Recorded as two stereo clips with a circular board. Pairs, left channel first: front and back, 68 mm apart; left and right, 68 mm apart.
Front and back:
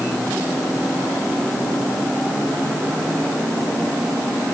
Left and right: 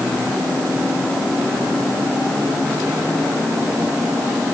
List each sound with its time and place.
Only background noise.